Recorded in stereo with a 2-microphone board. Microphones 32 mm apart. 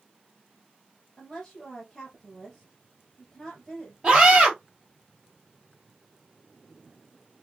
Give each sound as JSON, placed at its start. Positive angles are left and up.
{"t": 1.2, "sound": "a woman speaking", "side_deg": 10, "distance_m": 2.0}
{"t": 4.0, "sound": "a scream", "side_deg": -25, "distance_m": 2.5}